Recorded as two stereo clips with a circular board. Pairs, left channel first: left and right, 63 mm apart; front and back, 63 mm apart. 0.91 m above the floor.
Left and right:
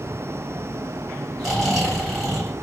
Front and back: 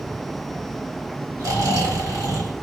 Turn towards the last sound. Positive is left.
turn(degrees=180)